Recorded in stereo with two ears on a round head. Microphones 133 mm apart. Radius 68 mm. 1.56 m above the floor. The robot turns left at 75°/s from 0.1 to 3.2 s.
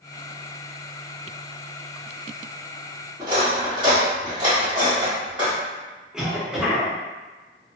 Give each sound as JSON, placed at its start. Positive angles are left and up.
{"t": 3.2, "sound": "cutlery clinking", "side_deg": -35, "distance_m": 1.9}
{"t": 6.1, "sound": "a cough", "side_deg": -5, "distance_m": 0.9}